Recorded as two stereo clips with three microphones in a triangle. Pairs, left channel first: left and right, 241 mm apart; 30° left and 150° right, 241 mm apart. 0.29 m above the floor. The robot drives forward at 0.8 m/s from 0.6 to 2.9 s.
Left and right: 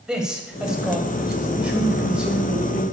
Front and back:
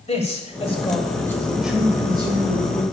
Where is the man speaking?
5° right, 1.6 m; by 2.8 s 175° right, 1.7 m.